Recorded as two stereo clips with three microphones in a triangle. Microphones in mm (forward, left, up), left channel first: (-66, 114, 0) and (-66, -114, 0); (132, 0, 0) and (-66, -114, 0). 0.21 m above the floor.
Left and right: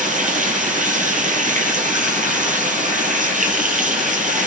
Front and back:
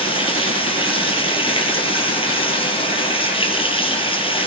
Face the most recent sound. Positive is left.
turn(degrees=-35)